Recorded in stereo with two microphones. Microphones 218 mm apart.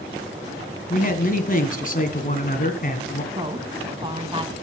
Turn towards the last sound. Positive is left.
turn(degrees=-25)  # may be behind; listen again after turning